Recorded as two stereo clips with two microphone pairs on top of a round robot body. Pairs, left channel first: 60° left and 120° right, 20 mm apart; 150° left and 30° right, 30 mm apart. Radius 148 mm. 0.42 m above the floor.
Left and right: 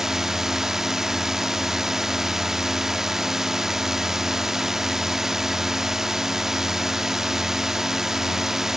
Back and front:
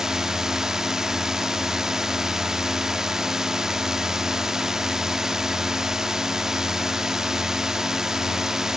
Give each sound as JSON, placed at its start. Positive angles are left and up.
{"t": 0.0, "sound": "a drone", "azimuth_deg": -70}